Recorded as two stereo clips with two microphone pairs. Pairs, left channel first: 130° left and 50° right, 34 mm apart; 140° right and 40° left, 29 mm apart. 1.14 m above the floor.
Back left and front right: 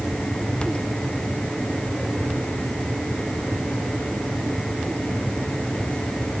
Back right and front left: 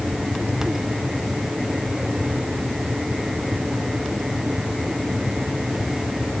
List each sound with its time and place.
Only background noise.